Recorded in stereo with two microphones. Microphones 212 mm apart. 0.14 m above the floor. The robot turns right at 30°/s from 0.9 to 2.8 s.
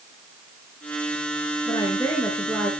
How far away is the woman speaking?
About 1.7 m.